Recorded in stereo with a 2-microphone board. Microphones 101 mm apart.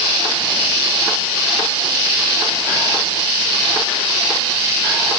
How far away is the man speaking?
I don't hear a man speaking.